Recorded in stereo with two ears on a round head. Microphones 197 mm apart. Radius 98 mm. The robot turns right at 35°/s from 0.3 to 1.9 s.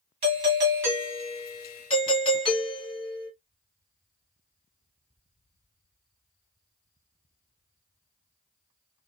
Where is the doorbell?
30° right, 1.7 m; by 3.3 s 25° left, 1.7 m.